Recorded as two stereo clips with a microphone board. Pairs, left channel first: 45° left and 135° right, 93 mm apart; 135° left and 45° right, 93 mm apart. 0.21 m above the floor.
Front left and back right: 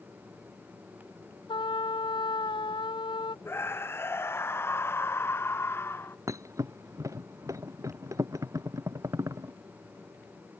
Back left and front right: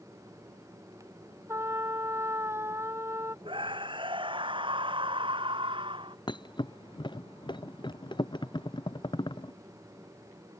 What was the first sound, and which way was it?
A trumpet, 15° left.